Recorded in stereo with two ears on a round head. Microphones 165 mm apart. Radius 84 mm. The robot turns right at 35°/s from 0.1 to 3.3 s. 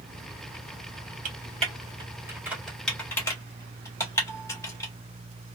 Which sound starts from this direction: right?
Typing on a keyboard, at 1.2 s.